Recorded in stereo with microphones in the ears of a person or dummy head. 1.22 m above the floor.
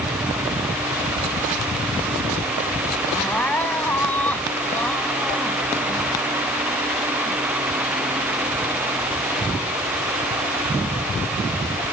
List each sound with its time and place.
3.1 s crying: 10° left (ahead or behind)